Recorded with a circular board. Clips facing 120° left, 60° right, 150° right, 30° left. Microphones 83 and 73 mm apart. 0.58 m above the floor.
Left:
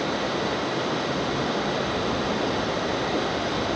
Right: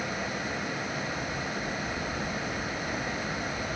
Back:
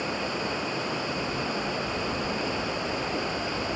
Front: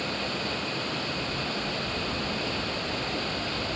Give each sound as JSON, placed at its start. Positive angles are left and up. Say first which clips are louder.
{"t": 0.0, "sound": "running water", "louder": "left 8 dB, back 2 dB", "azimuth_deg": 135}